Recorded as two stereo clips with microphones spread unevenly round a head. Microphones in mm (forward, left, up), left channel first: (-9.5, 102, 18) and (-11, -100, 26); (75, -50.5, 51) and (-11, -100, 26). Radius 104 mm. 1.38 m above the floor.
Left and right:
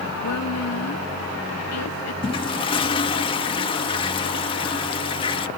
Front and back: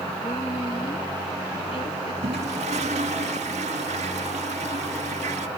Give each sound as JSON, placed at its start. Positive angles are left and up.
{"t": 0.2, "sound": "a woman speaking", "azimuth_deg": 95}
{"t": 2.2, "sound": "a toilet flushing", "azimuth_deg": 155}